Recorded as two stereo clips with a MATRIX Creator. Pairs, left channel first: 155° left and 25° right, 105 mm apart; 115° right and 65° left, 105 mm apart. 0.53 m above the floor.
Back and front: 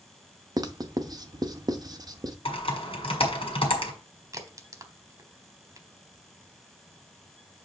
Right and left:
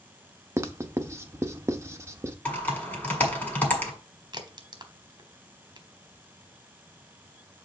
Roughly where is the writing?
Ahead.